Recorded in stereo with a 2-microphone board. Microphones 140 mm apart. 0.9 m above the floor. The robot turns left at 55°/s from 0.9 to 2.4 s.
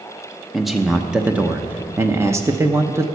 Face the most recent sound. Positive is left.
turn(degrees=-20)  # may be behind; listen again after turning